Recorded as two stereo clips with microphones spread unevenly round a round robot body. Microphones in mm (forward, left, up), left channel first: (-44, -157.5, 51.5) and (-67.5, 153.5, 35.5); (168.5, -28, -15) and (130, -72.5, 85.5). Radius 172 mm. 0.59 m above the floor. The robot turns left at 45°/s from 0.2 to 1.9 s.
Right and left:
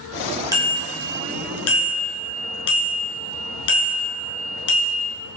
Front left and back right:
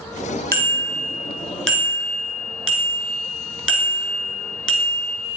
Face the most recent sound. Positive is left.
turn(degrees=-50)